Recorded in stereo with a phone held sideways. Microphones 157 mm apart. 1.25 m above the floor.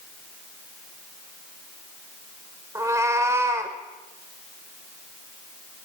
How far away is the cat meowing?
About 1.4 m.